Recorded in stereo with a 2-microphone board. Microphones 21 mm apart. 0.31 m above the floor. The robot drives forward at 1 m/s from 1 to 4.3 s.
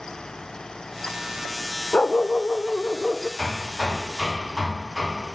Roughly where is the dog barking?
Left.